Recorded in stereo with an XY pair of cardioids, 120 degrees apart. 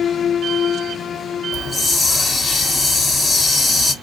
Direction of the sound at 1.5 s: 35° left.